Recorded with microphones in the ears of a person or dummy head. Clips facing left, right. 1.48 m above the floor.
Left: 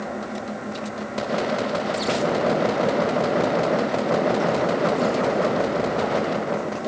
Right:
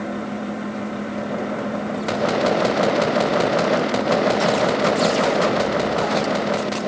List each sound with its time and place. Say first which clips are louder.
0.0 s a fan: right 3 dB; 40° right (ahead or behind), 1.3 m